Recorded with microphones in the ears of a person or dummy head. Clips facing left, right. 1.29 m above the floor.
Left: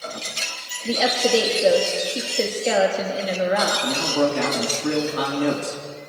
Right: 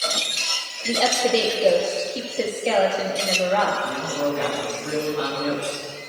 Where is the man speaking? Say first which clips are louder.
Left 3 dB; 65° left (ahead or behind), 3 m.